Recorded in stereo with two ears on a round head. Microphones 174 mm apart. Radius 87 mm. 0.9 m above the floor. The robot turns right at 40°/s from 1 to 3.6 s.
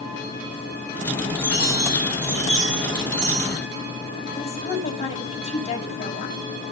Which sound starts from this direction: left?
A woman speaking, at 4.4 s.